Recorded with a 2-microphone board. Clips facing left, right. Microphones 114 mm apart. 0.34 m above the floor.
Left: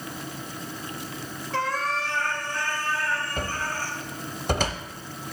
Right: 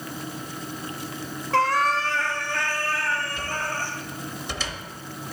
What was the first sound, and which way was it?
A cat meowing, 70° right (ahead or behind).